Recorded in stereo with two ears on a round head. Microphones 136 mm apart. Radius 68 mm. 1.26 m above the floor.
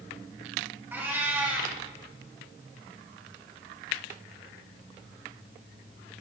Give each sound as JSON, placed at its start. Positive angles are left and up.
{"t": 0.9, "sound": "a cat meowing", "side_deg": -15, "distance_m": 2.0}